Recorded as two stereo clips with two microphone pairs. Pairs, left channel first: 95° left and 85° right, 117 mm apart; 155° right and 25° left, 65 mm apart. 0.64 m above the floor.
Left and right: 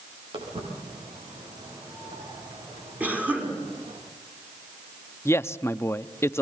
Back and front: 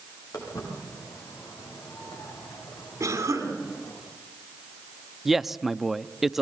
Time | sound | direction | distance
0.3 | footsteps | 125° right | 10 m
3.0 | a cough | 10° right | 6 m
5.2 | a man speaking | 100° left | 0.5 m